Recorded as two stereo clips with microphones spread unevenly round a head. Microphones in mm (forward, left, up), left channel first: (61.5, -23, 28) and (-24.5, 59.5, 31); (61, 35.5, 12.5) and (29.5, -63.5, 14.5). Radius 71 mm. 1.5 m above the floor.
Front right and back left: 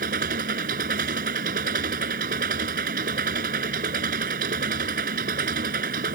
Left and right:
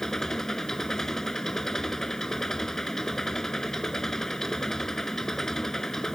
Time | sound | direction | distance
0.0 | an engine running | 160° left | ?